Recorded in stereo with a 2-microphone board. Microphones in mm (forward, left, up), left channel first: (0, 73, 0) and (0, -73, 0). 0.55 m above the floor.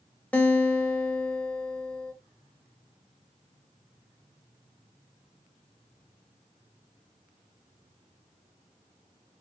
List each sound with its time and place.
0.3 s a guitar: 10° left (ahead or behind), 0.9 m